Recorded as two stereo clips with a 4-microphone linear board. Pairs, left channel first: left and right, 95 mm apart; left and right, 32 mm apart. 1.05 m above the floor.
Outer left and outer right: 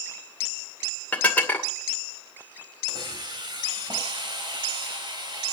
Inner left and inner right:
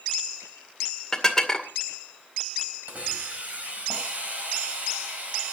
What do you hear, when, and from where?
1.1 s dishes clattering: 15° left (ahead or behind), 2 m
2.9 s a hiss: 50° right (ahead or behind), 4.5 m